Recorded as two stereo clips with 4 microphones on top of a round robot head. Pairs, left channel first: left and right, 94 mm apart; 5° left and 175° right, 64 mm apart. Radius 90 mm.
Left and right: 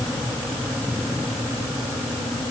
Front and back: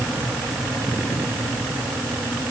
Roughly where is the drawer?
I don't hear a drawer.